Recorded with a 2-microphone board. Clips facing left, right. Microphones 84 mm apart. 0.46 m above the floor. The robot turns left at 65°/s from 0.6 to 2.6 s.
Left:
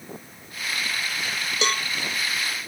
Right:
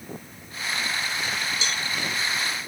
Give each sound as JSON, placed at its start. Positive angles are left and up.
{"t": 1.6, "sound": "a cowbell", "side_deg": 65}